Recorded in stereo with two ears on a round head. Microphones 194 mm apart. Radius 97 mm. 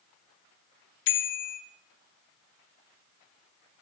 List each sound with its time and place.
1.1 s a bicycle bell: 60° left (ahead or behind), 2.5 m